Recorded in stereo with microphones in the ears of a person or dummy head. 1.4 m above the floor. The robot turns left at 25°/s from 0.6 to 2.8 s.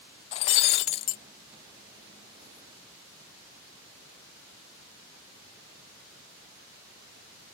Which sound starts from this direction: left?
Breaking glass, at 0.3 s.